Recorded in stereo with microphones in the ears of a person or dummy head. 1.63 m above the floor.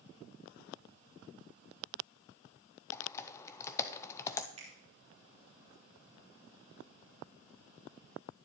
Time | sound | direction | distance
2.9 | typing on a keyboard | 15° left (ahead or behind) | 0.5 m
4.6 | a finger snap | 30° right (ahead or behind) | 3.5 m